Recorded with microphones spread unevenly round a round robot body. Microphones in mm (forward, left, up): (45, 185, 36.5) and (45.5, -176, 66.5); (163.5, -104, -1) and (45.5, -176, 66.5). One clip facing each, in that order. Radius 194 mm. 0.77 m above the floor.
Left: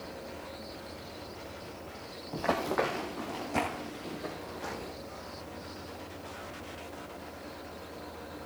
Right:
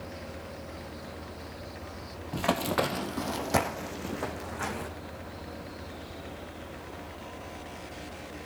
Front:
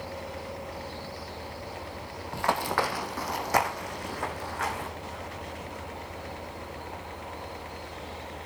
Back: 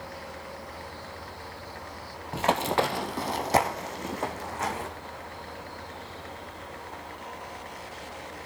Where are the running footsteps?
140° right, 1.1 m; by 4.9 s 95° right, 3 m.